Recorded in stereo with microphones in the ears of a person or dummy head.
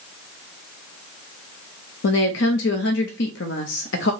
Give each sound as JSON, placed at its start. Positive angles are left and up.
{"t": 2.0, "sound": "a woman speaking", "side_deg": 70, "distance_m": 0.6}